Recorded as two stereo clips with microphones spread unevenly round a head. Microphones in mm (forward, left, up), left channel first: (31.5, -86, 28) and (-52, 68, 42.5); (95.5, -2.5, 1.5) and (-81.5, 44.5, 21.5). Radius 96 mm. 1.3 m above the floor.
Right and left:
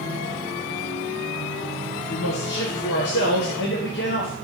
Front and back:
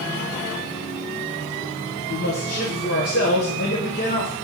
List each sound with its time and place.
2.1 s a man speaking: 50° right, 1.0 m